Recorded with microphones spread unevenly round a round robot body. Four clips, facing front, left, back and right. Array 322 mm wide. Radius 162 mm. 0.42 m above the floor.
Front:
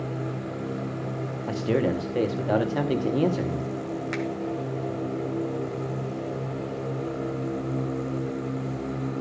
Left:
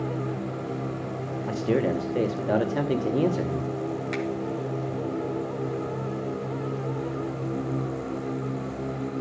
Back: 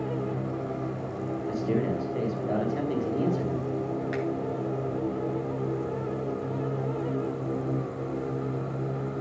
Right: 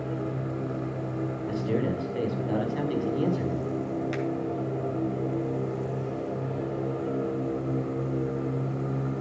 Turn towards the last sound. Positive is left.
turn(degrees=-35)